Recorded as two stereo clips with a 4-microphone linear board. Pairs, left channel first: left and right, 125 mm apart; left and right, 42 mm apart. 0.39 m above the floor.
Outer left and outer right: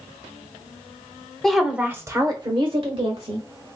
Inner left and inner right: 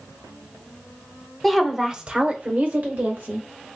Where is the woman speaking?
5° left (ahead or behind), 0.9 m; by 3.4 s 60° right (ahead or behind), 1.5 m.